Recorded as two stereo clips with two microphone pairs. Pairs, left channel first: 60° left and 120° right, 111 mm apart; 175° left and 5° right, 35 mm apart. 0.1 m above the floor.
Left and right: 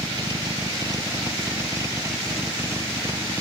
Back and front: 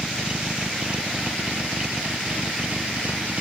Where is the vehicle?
65° right; by 3.4 s 55° right.